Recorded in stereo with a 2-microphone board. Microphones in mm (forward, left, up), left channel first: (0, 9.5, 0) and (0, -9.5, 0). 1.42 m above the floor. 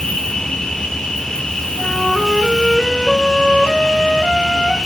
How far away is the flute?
About 4.5 m.